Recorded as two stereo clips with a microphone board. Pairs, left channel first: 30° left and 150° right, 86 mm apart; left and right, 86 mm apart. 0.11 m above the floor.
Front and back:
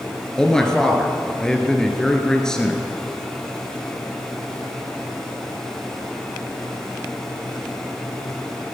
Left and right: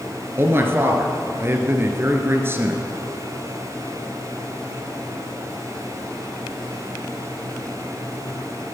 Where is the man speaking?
45° right, 1.9 m.